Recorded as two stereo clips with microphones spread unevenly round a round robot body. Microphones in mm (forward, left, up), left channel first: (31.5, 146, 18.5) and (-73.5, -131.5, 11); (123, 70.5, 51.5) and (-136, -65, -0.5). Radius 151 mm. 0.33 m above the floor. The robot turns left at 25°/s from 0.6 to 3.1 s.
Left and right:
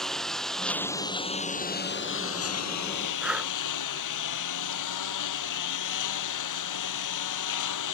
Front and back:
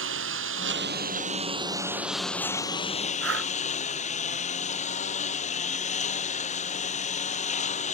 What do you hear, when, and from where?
0.0 s a lawn mower: 160° left; by 8.0 s 95° left
3.2 s breathing: 160° left